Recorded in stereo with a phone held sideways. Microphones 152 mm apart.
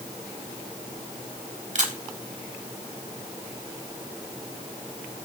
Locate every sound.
1.8 s a camera shutter: 55° right (ahead or behind), 1.7 m